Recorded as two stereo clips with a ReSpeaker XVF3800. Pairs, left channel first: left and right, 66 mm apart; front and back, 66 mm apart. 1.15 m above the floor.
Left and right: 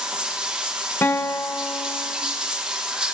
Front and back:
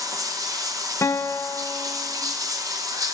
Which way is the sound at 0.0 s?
165° right.